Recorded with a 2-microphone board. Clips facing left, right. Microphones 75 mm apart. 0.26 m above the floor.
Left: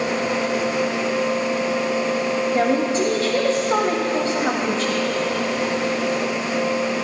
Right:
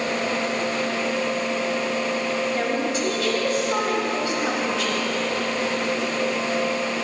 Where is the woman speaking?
30° left (ahead or behind), 1.0 m.